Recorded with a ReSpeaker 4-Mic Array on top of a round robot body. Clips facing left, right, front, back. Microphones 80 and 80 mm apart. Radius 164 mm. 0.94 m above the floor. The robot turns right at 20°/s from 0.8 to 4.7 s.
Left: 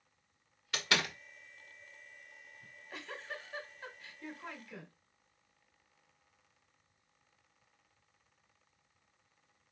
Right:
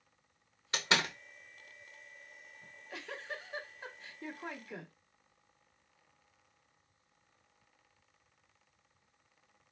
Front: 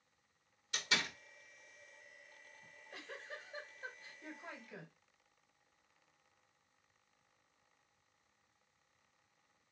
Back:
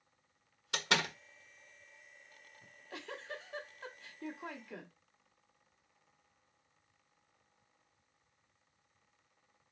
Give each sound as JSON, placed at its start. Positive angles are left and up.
{"t": 0.7, "sound": "a door slam", "azimuth_deg": -155, "distance_m": 1.2}
{"t": 2.6, "sound": "a giggle", "azimuth_deg": 175, "distance_m": 1.4}